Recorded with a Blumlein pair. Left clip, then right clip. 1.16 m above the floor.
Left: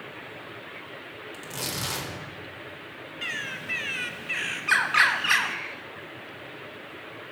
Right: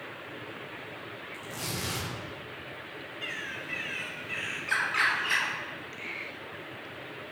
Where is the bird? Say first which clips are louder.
Left 5 dB; 70° left, 0.5 m.